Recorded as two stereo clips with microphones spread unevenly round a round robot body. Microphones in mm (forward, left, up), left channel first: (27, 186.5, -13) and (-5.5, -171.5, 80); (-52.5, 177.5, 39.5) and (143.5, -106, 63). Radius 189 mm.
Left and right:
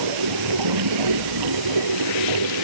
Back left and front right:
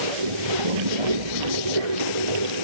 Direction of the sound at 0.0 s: 70° right.